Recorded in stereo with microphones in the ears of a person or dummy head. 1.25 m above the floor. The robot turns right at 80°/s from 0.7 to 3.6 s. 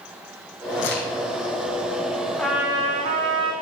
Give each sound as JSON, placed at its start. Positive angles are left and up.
{"t": 0.8, "sound": "a crack", "side_deg": 70, "distance_m": 3.5}
{"t": 2.4, "sound": "a trumpet", "azimuth_deg": 170, "distance_m": 1.8}